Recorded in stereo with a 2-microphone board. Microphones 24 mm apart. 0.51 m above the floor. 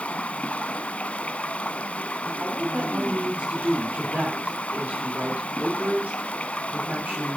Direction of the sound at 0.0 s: 75° left (ahead or behind).